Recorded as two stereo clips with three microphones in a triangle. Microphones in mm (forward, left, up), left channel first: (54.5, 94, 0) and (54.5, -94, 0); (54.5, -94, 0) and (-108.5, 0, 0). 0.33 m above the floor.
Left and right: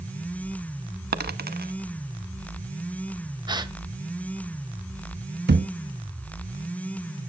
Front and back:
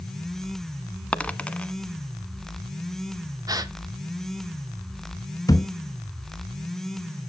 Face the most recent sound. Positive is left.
turn(degrees=-100)